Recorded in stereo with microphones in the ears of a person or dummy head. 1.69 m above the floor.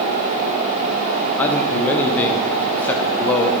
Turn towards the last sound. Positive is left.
turn(degrees=15)  # may be behind; listen again after turning